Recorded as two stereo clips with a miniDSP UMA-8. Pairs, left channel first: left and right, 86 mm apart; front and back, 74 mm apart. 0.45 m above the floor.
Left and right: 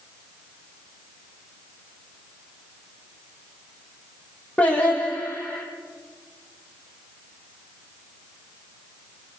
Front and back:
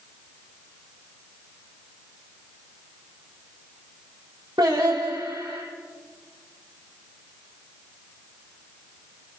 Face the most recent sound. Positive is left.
turn(degrees=165)